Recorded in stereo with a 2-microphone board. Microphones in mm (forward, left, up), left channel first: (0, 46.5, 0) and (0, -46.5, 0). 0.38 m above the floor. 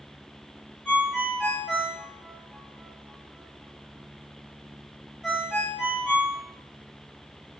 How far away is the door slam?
No door slam in this recording.